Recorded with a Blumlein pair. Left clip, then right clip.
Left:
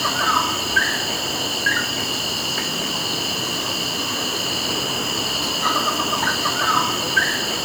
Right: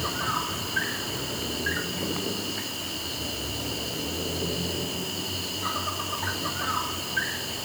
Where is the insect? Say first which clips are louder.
Left 10 dB; 25° left.